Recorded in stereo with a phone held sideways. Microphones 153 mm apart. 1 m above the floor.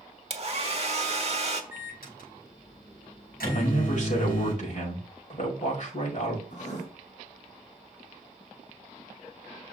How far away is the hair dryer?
About 1.2 m.